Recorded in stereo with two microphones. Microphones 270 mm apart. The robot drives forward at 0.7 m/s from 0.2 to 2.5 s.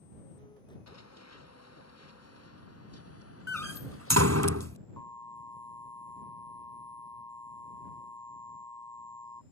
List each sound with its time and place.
0.9 s running footsteps: 70° left (ahead or behind); by 4.5 s 50° left (ahead or behind)
3.5 s a door slam: 70° right (ahead or behind)
5.0 s an alarm: 10° left (ahead or behind)